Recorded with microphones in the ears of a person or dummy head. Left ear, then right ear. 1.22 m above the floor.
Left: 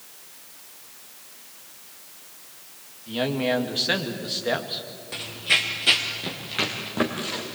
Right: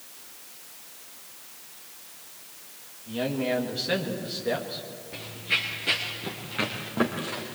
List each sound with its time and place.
3.1 s a man speaking: 25° left (ahead or behind), 2 m
5.1 s running footsteps: 35° left (ahead or behind), 2 m; by 7.4 s 5° right (ahead or behind), 3.5 m